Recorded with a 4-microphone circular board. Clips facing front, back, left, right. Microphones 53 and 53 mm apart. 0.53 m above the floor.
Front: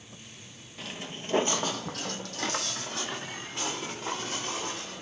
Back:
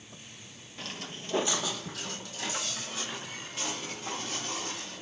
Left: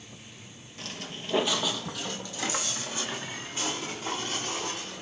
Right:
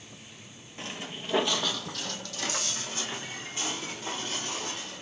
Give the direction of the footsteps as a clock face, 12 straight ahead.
3 o'clock.